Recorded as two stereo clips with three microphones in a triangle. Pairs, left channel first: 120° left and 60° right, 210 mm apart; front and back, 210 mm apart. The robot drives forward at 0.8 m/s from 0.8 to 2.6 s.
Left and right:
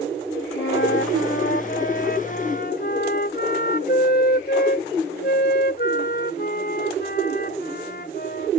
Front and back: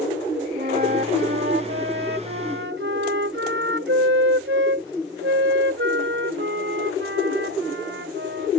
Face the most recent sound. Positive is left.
turn(degrees=160)